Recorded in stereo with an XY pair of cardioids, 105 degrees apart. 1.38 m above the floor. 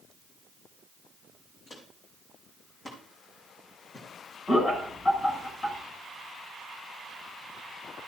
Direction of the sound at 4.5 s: 40° left.